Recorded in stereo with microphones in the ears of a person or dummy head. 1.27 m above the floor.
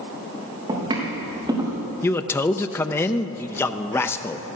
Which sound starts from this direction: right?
Footsteps, at 0.7 s.